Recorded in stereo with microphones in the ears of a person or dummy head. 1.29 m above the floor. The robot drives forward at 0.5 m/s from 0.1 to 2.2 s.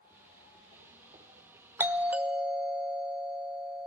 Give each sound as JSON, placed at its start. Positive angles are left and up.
{"t": 1.8, "sound": "a doorbell", "side_deg": -10, "distance_m": 0.7}